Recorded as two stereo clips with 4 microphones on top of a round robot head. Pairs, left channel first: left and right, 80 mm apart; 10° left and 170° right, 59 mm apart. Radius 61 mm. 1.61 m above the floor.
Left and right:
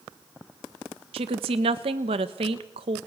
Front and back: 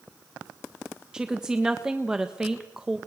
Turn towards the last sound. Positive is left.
turn(degrees=-90)